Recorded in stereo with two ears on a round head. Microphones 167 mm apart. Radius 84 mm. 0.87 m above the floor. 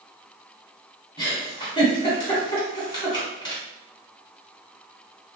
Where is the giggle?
25° left (ahead or behind), 1.9 m.